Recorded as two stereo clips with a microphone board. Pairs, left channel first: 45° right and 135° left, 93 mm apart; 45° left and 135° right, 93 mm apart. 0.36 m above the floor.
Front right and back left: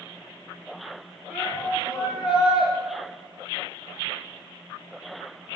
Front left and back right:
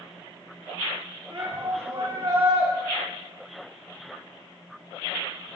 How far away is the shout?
About 6.5 m.